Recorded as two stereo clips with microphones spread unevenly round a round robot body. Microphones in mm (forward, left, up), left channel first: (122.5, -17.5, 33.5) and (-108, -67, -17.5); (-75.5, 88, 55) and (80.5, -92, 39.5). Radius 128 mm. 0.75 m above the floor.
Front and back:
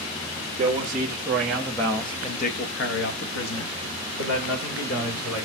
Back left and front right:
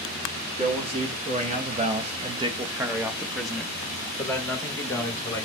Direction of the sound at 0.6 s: 105° right.